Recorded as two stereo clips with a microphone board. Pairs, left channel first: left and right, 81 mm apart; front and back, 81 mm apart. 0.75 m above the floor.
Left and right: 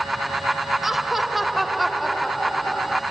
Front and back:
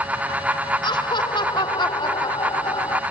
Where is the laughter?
5° right; by 3.0 s 5° left.